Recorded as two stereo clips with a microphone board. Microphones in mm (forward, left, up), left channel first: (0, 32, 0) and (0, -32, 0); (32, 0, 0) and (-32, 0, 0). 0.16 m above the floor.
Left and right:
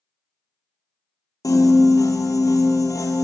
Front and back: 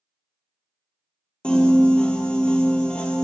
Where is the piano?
75° left, 0.6 m.